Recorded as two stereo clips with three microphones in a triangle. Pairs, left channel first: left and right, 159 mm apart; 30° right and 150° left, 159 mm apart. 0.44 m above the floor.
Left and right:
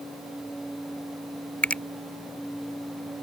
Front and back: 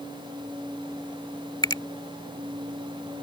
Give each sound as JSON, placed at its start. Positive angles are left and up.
{"t": 1.6, "sound": "a finger snap", "azimuth_deg": 15}